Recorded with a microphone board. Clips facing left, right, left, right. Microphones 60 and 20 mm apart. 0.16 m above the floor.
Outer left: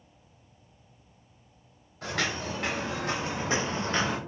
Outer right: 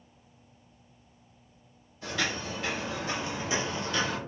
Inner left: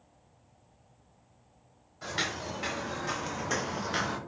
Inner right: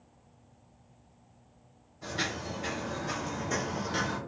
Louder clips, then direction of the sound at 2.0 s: Outer left 1 dB, inner left 1 dB; 65° left (ahead or behind).